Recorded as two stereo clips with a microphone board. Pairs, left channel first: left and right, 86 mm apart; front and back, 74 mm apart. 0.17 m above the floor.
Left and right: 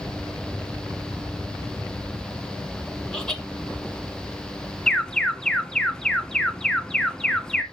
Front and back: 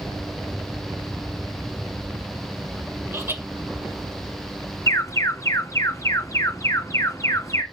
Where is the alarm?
10° left, 1.1 m.